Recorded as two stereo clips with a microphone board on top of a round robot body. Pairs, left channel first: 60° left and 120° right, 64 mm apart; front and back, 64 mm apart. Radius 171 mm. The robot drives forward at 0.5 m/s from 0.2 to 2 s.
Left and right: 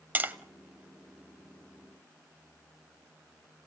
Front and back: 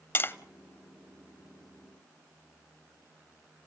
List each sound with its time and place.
0.1 s tapping: 55° right, 1.5 m; by 0.3 s 60° right, 1.5 m